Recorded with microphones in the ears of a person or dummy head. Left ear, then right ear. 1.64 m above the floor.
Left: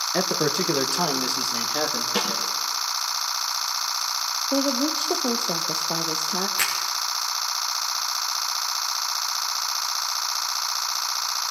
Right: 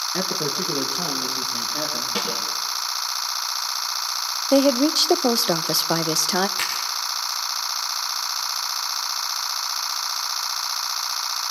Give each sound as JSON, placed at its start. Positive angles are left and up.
{"t": 0.1, "sound": "a man speaking", "side_deg": 20, "distance_m": 0.8}
{"t": 2.1, "sound": "a snare drum", "side_deg": 15, "distance_m": 4.0}
{"t": 4.5, "sound": "a woman speaking", "side_deg": -70, "distance_m": 0.5}
{"t": 6.6, "sound": "a finger snap", "side_deg": 10, "distance_m": 2.5}